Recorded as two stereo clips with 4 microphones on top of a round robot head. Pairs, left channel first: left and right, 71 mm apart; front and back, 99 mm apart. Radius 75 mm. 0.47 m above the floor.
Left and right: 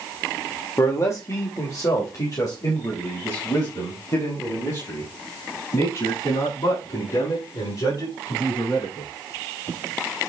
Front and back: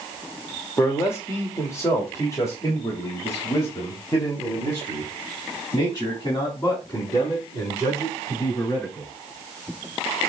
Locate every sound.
0.8 s a man speaking: 55° left, 1.6 m